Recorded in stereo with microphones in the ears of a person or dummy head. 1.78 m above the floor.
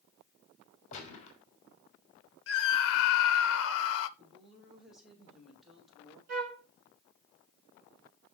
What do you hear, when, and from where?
0.9 s a gunshot: 40° left (ahead or behind), 2.5 m
2.5 s a scream: 75° left (ahead or behind), 0.6 m
4.2 s a woman speaking: centre (ahead or behind), 3 m
6.3 s a flute: 50° right (ahead or behind), 2.5 m